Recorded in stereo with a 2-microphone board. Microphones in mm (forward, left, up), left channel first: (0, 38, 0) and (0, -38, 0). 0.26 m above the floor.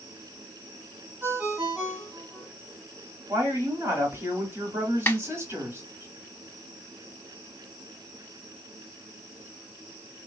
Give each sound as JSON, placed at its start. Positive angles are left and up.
{"t": 1.2, "sound": "a ringtone", "side_deg": -20, "distance_m": 1.3}
{"t": 3.3, "sound": "a woman speaking", "side_deg": -35, "distance_m": 1.7}
{"t": 5.1, "sound": "a snare drum", "side_deg": 30, "distance_m": 0.5}